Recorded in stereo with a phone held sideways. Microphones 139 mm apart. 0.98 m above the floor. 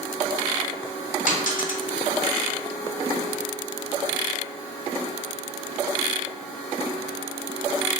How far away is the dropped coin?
About 0.8 m.